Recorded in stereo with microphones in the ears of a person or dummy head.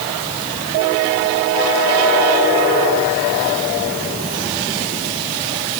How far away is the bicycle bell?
I don't hear a bicycle bell.